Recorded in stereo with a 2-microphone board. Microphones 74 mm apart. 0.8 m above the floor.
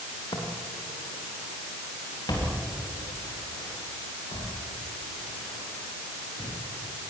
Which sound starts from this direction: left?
Footsteps, at 0.3 s.